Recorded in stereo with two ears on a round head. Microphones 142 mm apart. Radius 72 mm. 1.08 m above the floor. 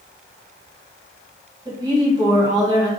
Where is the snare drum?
I don't hear a snare drum.